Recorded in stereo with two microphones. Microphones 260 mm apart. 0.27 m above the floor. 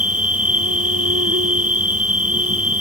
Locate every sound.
0.0 s an insect: 65° right (ahead or behind)